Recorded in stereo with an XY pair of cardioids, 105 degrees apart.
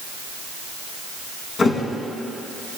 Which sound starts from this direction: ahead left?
A thud, at 1.6 s.